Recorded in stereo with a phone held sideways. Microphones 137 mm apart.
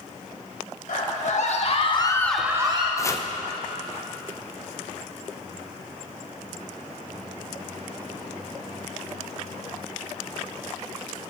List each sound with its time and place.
0.9 s a scream: 65° left (ahead or behind), 2.5 m; by 2.9 s 40° right (ahead or behind), 1.2 m
3.0 s chopping: 20° left (ahead or behind), 0.6 m